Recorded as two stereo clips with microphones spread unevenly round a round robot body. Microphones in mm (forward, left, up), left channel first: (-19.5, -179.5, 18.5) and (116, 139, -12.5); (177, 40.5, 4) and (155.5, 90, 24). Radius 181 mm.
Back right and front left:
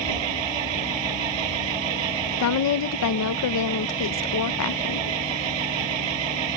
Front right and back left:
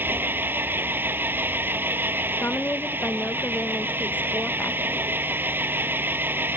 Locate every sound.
0.0 s an engine running: 60° left
2.4 s a woman speaking: 75° right